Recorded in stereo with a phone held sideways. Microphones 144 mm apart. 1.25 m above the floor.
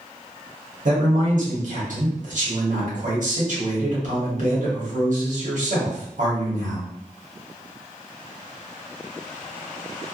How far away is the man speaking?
About 1.2 m.